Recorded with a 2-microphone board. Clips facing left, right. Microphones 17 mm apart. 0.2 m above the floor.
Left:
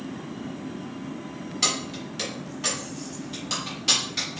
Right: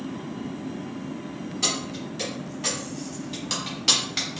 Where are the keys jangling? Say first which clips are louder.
Left 1 dB; 35° left (ahead or behind), 1.3 m; by 4.4 s 35° right (ahead or behind), 1.4 m.